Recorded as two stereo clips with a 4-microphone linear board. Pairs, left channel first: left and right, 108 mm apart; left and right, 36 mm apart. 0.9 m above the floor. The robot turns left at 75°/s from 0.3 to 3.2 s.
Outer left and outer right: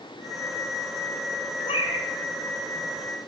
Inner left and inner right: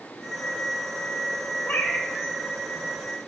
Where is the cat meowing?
110° left, 1.6 m; by 2.1 s 75° left, 1.6 m.